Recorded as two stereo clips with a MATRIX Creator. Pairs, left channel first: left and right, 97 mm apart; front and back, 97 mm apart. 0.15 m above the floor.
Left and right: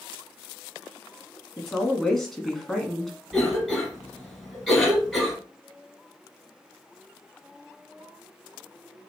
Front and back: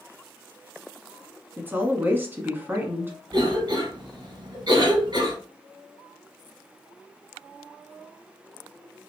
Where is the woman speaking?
170° left, 1.0 m.